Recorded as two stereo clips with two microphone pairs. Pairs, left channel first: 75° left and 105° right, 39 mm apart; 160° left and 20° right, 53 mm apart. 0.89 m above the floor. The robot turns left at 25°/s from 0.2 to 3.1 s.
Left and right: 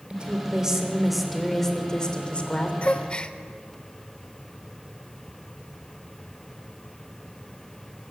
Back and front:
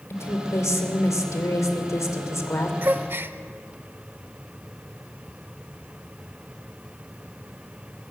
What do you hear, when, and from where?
0.1 s a woman speaking: 170° right, 2.5 m; by 2.7 s 130° left, 2.5 m
2.8 s a gasp: 25° left, 0.8 m; by 3.4 s 15° left, 0.8 m